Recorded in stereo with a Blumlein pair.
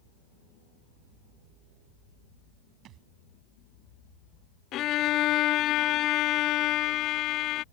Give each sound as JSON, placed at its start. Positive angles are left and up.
{"t": 2.9, "sound": "a thud", "azimuth_deg": -35}
{"t": 4.7, "sound": "a violin", "azimuth_deg": 35}